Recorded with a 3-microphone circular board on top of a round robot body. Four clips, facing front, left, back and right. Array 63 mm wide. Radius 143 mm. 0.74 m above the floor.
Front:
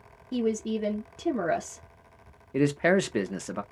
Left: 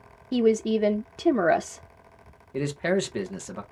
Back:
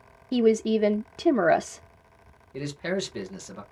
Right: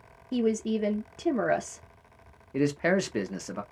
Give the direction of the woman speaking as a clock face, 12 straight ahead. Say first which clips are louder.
Left 5 dB, back 7 dB; 7 o'clock.